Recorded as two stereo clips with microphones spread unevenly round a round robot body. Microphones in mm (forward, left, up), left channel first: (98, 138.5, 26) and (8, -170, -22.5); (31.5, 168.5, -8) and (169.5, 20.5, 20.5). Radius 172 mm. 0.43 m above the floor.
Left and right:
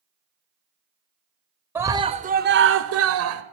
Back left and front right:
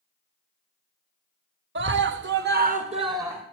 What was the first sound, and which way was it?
A scream, 30° right.